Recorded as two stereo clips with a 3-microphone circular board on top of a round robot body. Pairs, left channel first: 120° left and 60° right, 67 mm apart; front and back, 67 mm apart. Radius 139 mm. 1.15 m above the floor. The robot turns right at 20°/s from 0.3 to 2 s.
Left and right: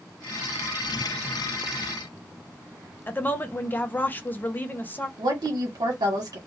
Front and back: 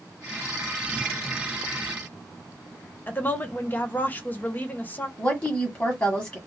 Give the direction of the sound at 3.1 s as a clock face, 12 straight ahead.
10 o'clock.